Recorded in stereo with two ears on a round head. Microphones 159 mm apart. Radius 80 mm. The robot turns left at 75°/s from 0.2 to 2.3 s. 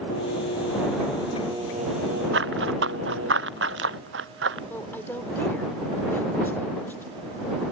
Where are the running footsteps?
70° right (ahead or behind).